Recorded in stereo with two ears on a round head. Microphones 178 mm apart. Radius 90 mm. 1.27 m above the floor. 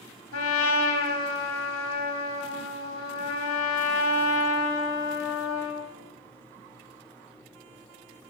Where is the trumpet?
75° left (ahead or behind), 1.5 m.